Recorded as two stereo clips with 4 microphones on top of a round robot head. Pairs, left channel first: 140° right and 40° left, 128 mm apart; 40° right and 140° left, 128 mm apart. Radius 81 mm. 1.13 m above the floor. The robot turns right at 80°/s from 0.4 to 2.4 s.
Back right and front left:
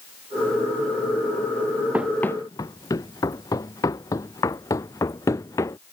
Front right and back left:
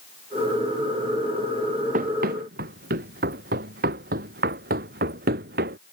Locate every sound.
1.9 s running footsteps: 115° left; by 5.8 s 150° left